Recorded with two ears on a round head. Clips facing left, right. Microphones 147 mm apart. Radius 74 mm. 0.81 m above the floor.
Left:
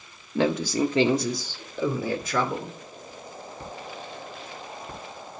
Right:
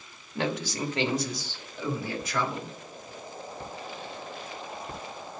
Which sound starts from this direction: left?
A man speaking, at 0.3 s.